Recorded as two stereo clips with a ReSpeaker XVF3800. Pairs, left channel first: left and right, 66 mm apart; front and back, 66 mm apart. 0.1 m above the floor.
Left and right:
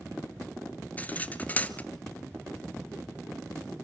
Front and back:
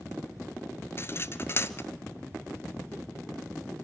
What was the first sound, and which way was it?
Cutlery clinking, 30° left.